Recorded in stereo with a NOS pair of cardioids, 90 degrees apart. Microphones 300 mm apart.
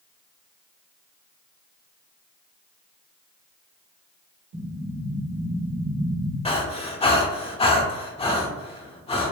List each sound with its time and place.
4.5 s an explosion: 70° right, 1.2 m
6.5 s breathing: 20° left, 0.8 m